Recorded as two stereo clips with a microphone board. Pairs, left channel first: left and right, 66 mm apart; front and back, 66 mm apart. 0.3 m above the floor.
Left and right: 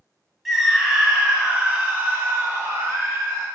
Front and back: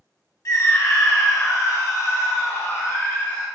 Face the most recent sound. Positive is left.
turn(degrees=-50)